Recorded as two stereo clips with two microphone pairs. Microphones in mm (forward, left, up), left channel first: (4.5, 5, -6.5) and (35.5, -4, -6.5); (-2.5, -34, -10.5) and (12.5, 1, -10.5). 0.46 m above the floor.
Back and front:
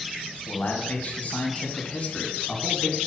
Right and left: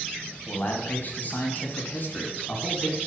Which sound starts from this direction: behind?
A man speaking, at 0.5 s.